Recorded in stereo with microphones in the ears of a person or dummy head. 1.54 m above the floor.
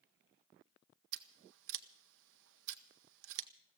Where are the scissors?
70° right (ahead or behind), 0.8 m.